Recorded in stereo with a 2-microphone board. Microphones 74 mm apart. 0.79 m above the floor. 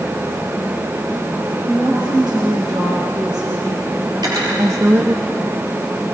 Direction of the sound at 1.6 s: 75° right (ahead or behind).